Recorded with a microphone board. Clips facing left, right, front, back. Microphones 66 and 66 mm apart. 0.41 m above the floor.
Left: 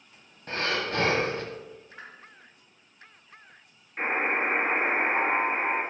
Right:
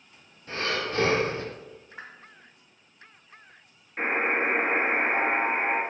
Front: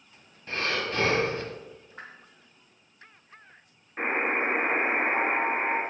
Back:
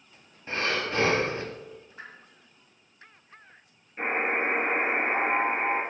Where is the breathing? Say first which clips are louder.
Left 1 dB, back 1 dB; 110° left, 0.8 m.